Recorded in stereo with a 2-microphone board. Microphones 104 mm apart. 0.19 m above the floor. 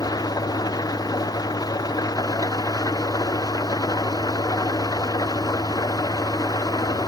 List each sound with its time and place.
0.0 s an engine running: 35° left (ahead or behind)